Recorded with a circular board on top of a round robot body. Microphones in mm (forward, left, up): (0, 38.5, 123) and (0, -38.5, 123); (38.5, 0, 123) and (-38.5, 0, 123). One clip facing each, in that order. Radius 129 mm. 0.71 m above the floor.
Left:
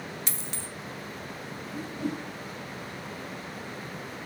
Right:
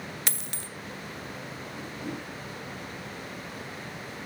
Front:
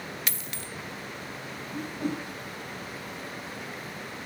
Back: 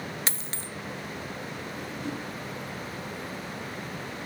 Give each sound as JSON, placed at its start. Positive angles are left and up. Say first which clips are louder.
{"t": 0.3, "sound": "a dropped coin", "louder": "even, back 1 dB", "azimuth_deg": -125, "distance_m": 0.5}
{"t": 1.7, "sound": "a whoosh", "louder": "left 5 dB, front 6 dB", "azimuth_deg": 40, "distance_m": 1.8}